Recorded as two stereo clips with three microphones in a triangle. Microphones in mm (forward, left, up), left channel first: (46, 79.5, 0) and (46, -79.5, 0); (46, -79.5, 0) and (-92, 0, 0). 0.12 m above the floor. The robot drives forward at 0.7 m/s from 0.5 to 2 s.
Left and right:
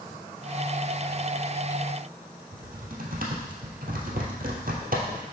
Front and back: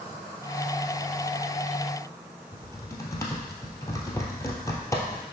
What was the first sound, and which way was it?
Typing on a keyboard, 100° right.